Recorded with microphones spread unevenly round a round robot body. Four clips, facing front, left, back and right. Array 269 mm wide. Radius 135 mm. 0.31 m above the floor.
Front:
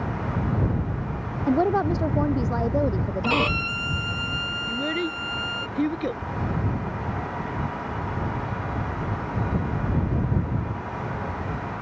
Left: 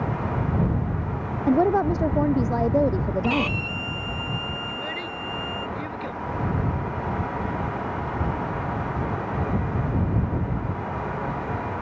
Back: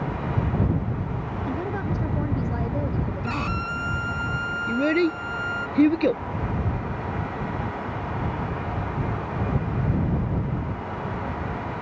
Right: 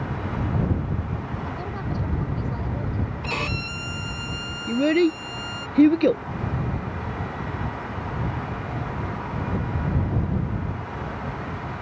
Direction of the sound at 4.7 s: 115° right.